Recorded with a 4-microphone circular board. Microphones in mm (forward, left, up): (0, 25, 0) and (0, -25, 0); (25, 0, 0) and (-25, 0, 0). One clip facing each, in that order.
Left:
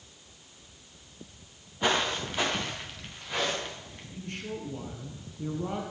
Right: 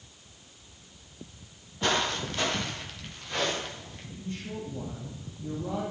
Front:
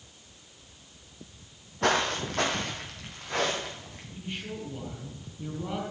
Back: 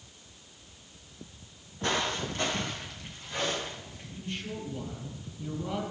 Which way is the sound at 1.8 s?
15° left.